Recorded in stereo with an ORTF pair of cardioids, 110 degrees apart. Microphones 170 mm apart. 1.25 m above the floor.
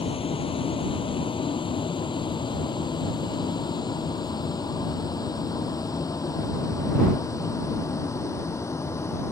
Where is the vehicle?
30° left; by 9.3 s 15° left.